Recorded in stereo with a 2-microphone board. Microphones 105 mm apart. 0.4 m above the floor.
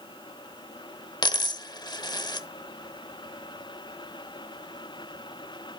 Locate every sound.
1.2 s a dropped coin: 40° left (ahead or behind), 0.7 m